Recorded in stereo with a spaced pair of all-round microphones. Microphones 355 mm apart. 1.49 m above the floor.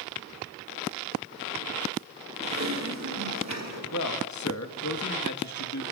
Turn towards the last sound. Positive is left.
turn(degrees=55)  # may be behind; listen again after turning